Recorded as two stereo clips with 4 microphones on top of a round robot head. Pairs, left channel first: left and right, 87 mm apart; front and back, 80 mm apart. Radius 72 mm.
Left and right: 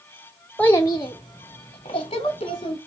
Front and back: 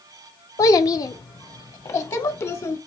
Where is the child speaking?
15° left, 0.6 m; by 2.8 s 45° left, 2 m.